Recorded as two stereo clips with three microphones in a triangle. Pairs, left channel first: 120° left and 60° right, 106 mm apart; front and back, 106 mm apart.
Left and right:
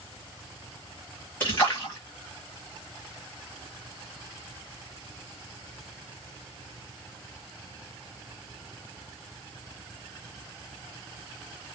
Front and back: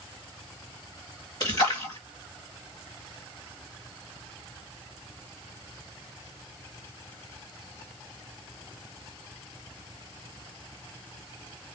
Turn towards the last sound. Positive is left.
turn(degrees=50)